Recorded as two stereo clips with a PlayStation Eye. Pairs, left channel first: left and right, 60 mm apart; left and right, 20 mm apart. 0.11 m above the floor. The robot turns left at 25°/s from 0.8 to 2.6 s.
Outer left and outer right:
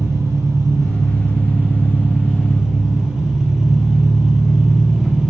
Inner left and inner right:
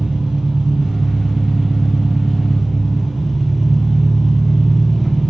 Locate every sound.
0.0 s an engine running: 120° right, 0.8 m; by 5.3 s 165° right, 0.8 m